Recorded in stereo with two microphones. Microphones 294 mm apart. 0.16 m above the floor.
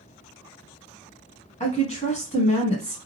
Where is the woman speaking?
25° left (ahead or behind), 1.1 m.